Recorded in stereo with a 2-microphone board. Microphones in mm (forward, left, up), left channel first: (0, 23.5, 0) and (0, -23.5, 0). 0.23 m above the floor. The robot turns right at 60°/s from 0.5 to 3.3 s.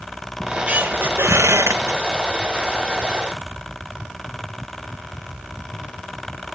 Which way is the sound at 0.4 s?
160° right.